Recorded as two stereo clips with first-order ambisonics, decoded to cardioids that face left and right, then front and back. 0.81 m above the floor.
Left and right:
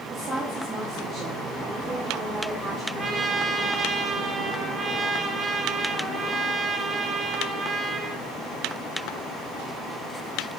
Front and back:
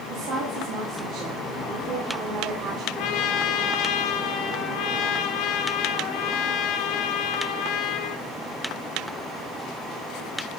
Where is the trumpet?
15° right, 1.1 m.